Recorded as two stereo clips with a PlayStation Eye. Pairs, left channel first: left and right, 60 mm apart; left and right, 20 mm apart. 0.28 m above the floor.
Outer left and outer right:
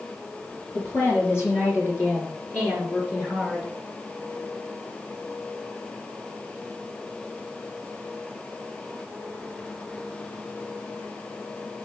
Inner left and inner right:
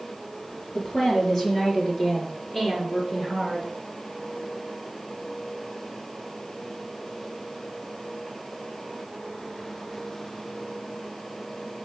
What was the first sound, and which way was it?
A woman speaking, 45° left (ahead or behind).